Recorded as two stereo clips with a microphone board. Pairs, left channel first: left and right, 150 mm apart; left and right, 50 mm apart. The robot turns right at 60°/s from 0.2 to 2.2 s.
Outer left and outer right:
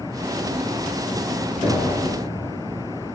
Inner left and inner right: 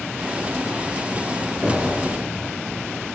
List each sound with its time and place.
1.6 s knocking: 30° right (ahead or behind), 2.5 m; by 1.9 s 10° right (ahead or behind), 2.5 m